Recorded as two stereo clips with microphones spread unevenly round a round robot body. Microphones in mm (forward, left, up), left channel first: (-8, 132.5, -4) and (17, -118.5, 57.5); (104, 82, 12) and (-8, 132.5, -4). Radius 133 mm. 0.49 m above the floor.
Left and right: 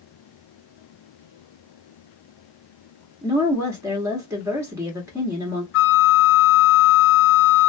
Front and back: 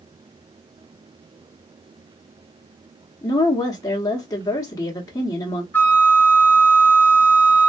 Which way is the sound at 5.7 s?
50° left.